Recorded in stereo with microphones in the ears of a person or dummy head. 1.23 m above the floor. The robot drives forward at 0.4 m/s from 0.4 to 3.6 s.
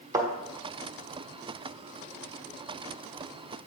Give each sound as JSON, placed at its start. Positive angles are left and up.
{"t": 0.1, "sound": "a thud", "side_deg": -20, "distance_m": 1.4}